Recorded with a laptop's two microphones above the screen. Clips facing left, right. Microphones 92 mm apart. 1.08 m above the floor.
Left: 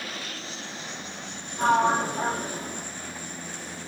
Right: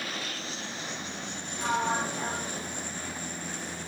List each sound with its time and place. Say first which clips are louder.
1.6 s a sliding door: left 7 dB; 45° left (ahead or behind), 0.6 m